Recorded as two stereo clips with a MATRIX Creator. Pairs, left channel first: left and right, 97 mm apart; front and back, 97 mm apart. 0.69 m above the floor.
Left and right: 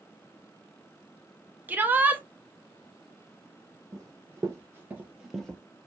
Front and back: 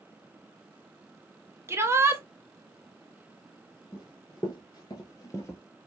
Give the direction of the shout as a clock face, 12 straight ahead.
5 o'clock.